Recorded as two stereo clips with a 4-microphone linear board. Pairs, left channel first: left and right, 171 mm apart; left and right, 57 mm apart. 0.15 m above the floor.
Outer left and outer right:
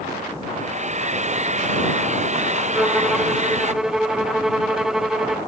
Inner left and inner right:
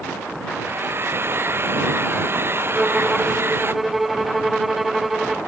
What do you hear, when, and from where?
0.5 s a hair dryer: 45° right (ahead or behind)
2.7 s a violin: centre (ahead or behind)